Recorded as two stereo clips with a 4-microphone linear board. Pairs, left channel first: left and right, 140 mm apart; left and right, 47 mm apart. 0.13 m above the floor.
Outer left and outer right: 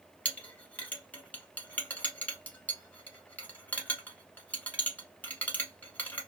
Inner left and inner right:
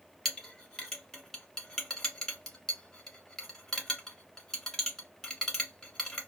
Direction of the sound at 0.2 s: 10° left (ahead or behind).